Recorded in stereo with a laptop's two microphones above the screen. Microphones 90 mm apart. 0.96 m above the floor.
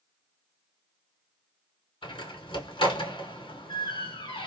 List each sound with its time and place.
2.0 s a door slam: 75° left (ahead or behind), 2 m